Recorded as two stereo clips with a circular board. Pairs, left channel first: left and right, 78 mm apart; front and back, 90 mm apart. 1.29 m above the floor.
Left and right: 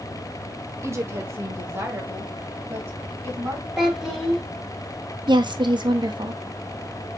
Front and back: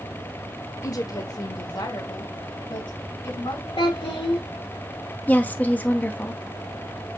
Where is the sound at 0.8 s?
40° right, 0.8 m; by 3.7 s 30° right, 3 m.